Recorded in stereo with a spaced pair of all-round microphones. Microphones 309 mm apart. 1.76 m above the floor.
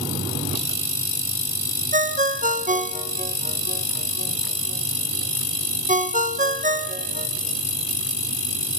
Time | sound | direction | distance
1.9 | a ringtone | 25° right (ahead or behind) | 1.0 m